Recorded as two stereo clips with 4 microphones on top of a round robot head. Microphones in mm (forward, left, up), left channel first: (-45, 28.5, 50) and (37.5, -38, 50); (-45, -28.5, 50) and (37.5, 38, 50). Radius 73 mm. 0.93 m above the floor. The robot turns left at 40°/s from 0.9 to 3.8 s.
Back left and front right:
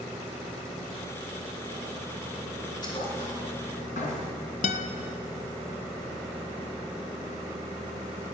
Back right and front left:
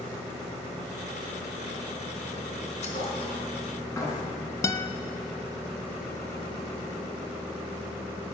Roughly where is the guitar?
Behind left.